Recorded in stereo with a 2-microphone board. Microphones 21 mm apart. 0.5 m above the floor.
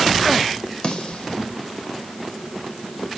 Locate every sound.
0.8 s a snare drum: 60° left (ahead or behind), 2 m